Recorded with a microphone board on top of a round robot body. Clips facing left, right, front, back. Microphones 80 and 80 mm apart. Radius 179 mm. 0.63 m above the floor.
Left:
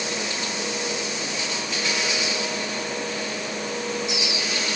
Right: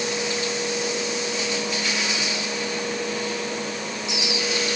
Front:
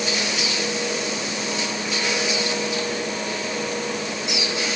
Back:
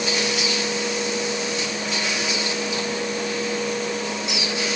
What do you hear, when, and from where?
Only background noise.